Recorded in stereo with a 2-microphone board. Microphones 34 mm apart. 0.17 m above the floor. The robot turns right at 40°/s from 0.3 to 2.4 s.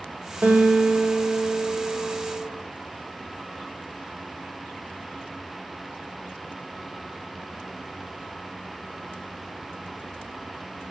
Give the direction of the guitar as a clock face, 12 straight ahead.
4 o'clock.